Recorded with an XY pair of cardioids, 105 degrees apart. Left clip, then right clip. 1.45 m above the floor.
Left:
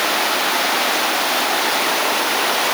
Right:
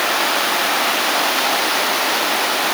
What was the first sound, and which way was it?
Only background noise.